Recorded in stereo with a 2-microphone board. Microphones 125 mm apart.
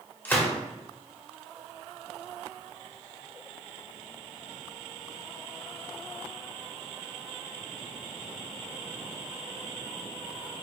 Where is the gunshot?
15° left (ahead or behind), 0.7 m.